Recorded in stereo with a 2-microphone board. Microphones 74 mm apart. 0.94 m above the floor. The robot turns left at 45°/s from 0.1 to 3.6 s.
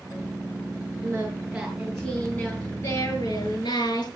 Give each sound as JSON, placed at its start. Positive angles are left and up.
{"t": 1.0, "sound": "singing", "azimuth_deg": -145, "distance_m": 7.5}